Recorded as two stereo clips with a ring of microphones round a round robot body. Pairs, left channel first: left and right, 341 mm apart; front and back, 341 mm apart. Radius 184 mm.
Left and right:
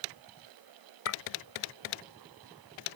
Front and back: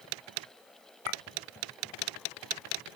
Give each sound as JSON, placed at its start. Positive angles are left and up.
{"t": 1.1, "sound": "a clink", "azimuth_deg": 45}